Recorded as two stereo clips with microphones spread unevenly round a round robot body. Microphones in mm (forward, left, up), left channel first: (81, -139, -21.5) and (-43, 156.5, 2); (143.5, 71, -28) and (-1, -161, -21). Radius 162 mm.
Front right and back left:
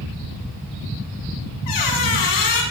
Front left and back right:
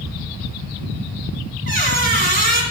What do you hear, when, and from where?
1.7 s a squeak: 70° right, 1.6 m